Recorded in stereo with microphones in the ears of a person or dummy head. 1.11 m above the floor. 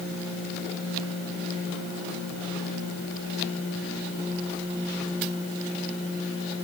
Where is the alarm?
No alarm in this recording.